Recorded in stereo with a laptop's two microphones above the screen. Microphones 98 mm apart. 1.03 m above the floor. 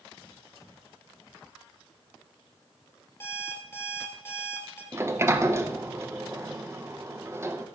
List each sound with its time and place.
3.2 s an alarm clock: 25° left (ahead or behind), 1.6 m
4.9 s a sliding door: 25° right (ahead or behind), 0.6 m